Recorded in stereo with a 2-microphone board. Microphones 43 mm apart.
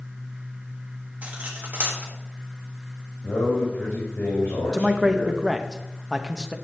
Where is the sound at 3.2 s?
80° left, 2.0 m.